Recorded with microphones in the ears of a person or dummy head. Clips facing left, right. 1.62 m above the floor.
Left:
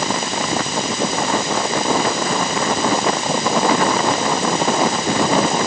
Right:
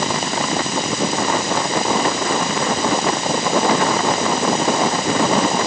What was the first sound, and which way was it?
Only background noise.